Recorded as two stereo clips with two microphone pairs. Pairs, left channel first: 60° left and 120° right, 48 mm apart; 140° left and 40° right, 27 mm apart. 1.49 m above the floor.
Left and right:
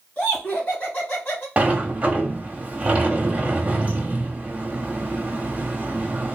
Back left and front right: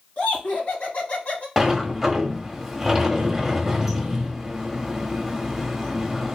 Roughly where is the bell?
I don't hear a bell.